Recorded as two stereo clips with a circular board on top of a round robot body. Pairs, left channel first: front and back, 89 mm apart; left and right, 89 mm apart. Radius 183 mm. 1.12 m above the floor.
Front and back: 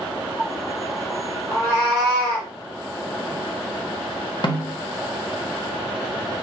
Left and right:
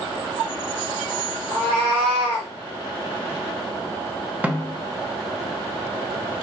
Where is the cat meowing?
120° right, 0.7 m; by 2.5 s 70° right, 1.2 m.